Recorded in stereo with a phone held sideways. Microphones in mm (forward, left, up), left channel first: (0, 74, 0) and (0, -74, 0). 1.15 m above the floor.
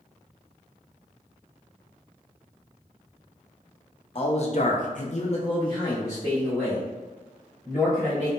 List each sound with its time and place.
4.2 s a man speaking: 40° left (ahead or behind), 0.7 m; by 8.3 s 5° left (ahead or behind), 2.5 m